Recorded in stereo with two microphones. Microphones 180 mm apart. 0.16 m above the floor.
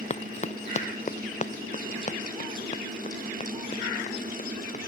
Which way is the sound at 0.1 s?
40° left (ahead or behind).